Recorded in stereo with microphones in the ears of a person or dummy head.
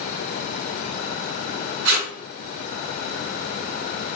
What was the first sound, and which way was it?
Tape being pulled, 60° right (ahead or behind).